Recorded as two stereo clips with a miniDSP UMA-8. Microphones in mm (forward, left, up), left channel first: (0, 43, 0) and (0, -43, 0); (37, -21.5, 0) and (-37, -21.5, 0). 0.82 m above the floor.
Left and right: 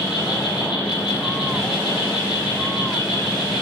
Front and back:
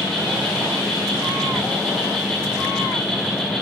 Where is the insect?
90° left, 1.8 m.